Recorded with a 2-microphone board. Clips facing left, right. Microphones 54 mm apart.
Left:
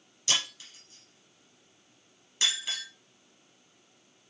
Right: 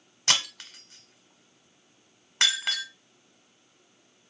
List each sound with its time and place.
0.3 s breaking glass: 75° right (ahead or behind), 0.9 m